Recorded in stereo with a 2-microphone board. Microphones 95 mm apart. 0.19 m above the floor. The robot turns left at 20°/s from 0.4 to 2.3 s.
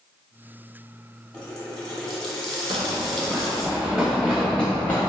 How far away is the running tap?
About 1.0 m.